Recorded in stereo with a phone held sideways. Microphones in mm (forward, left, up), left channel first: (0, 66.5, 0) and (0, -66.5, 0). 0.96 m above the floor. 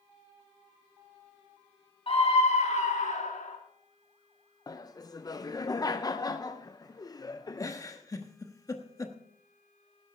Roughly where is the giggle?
Left.